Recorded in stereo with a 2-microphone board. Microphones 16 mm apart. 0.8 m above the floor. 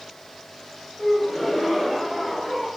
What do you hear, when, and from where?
1.0 s a gasp: 10° left (ahead or behind), 9.5 m